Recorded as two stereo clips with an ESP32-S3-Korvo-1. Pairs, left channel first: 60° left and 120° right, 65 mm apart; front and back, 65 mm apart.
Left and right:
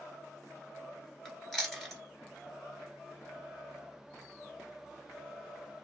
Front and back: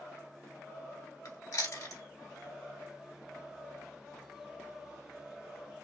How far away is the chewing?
About 1.3 m.